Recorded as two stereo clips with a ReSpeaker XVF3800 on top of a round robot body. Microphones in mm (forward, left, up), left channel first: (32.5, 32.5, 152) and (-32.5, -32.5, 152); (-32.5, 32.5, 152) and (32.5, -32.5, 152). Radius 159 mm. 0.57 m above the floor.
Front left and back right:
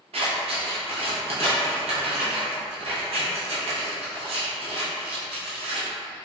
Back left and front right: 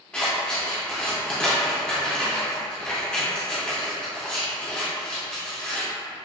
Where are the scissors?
145° right, 0.5 m.